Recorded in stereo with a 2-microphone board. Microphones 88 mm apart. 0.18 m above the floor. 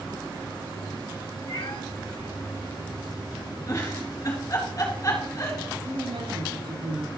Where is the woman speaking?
80° right, 7 m.